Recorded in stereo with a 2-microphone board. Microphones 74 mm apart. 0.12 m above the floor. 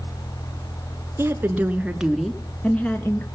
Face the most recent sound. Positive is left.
turn(degrees=30)  # may be behind; listen again after turning